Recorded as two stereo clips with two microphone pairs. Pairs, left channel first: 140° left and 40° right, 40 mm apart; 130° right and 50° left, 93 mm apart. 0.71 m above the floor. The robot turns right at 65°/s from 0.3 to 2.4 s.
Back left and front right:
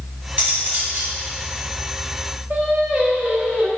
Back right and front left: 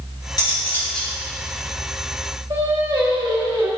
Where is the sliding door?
No sliding door in this recording.